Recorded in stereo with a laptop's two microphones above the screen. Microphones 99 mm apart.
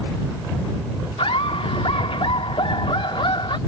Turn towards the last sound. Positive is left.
turn(degrees=60)  # may be behind; listen again after turning